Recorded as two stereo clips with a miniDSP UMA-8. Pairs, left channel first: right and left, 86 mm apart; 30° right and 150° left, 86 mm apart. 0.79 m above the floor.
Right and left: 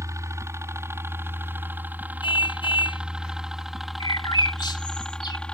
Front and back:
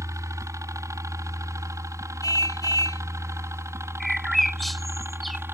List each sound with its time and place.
0.0 s a helicopter: 120° left; by 5.5 s 165° right
2.2 s a car horn: 75° right
4.0 s a bird: 120° right